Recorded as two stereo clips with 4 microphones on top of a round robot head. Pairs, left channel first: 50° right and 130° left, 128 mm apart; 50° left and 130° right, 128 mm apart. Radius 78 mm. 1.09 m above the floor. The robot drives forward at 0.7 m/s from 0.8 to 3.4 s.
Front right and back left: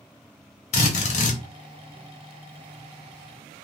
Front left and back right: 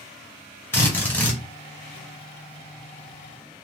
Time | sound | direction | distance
0.7 | a drill | 20° right | 1.3 m